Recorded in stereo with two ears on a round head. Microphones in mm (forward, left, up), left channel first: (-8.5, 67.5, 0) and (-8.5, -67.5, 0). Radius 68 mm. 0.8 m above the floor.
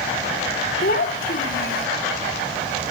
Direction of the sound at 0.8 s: 65° left (ahead or behind).